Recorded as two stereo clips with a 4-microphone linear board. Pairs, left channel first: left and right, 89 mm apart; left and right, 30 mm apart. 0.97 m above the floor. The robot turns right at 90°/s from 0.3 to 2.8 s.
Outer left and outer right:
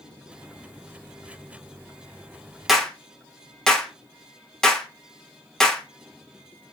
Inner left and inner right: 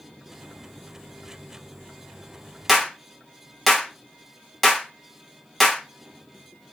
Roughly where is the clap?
Centre.